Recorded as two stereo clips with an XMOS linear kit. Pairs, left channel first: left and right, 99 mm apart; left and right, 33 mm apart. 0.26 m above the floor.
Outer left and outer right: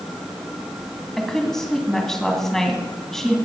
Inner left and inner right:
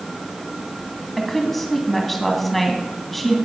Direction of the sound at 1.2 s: 5° left (ahead or behind).